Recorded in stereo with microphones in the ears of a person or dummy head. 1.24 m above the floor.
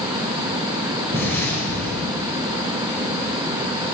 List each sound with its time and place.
1.1 s an explosion: 10° left (ahead or behind), 4.5 m